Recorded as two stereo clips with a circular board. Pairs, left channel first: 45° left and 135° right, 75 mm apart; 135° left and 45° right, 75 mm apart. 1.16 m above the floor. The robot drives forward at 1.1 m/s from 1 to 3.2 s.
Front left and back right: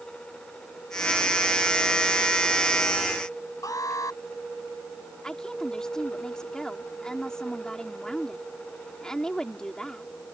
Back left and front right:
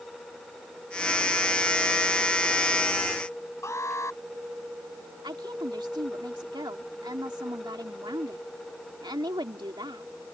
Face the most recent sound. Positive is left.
turn(degrees=-35)